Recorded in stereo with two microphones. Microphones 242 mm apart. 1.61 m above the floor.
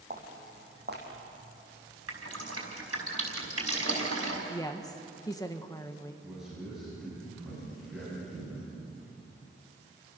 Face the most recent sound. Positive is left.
turn(degrees=0)  # may be behind; listen again after turning